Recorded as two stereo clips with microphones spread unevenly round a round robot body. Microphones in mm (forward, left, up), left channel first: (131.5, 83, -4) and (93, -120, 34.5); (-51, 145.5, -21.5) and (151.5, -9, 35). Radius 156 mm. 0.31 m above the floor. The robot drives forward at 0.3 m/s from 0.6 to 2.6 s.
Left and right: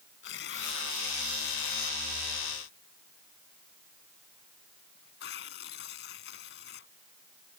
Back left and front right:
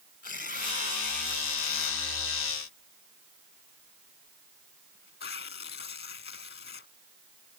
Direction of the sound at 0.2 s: 95° left.